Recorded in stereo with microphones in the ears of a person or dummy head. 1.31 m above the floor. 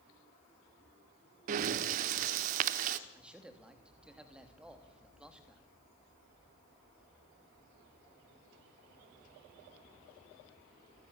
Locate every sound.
1.5 s breathing: 50° right (ahead or behind), 1.2 m
3.1 s a man speaking: 5° right (ahead or behind), 3 m